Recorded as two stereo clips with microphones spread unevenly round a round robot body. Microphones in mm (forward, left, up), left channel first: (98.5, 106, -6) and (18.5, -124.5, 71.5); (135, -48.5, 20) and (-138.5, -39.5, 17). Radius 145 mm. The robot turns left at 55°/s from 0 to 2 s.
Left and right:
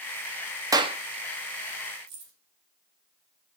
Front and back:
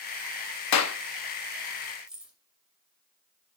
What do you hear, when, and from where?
0.7 s a clap: 30° right, 0.9 m; by 1.0 s 45° right, 0.9 m
2.1 s keys jangling: 95° right, 2.5 m